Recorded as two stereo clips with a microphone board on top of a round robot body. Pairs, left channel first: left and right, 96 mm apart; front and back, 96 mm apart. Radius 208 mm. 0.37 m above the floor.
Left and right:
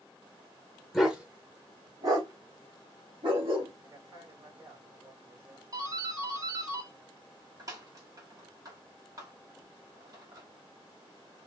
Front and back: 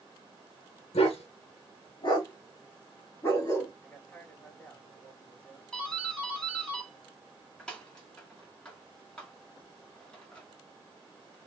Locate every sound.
0.9 s a dog barking: straight ahead, 0.9 m; by 3.7 s 70° right, 1.7 m
3.8 s a man speaking: 70° right, 1.8 m
5.7 s a doorbell: 75° right, 1.6 m